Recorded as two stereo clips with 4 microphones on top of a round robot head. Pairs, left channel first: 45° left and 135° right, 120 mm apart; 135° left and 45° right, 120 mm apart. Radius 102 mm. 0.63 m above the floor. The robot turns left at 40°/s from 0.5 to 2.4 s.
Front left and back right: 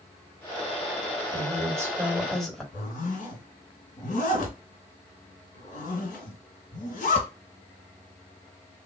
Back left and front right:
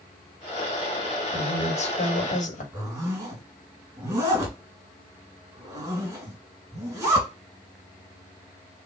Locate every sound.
1.3 s a woman speaking: 175° left, 1.8 m; by 2.6 s 135° left, 1.8 m
2.7 s a zipper: 20° left, 2.0 m